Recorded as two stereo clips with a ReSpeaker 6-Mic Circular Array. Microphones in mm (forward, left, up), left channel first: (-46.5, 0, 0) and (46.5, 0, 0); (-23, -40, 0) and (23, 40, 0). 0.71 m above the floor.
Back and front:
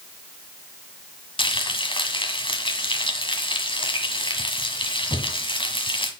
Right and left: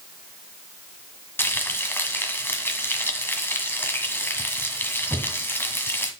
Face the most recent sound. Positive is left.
turn(degrees=175)